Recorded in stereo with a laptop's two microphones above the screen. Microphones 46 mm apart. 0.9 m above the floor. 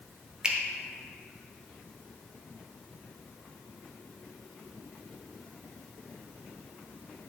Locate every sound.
0.4 s a finger snap: 15° right (ahead or behind), 0.5 m